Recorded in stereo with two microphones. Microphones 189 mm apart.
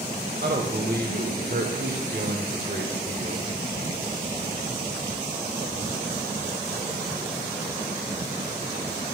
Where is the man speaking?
60° right (ahead or behind), 2 m.